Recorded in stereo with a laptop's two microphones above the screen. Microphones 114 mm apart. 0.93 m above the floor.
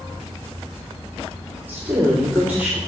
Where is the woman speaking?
15° right (ahead or behind), 2 m.